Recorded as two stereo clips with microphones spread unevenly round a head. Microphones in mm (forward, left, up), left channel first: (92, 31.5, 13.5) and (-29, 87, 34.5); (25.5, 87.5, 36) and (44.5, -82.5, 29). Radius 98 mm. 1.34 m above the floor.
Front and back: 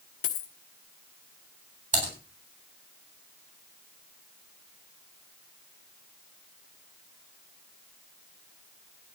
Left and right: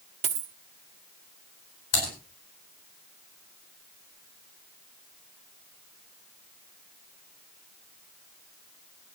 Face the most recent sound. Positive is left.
turn(degrees=125)